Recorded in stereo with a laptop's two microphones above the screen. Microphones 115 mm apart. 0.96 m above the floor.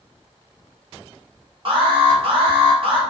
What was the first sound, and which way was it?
An alarm, 50° right (ahead or behind).